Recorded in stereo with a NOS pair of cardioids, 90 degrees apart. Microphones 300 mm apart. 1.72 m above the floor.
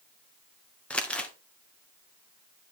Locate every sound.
0.9 s crumpling: 5° left, 1.3 m